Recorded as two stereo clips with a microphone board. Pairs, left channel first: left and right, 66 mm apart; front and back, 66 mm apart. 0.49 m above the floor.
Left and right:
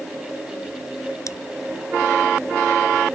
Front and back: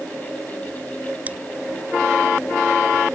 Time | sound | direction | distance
1.3 | scissors | 115° left | ?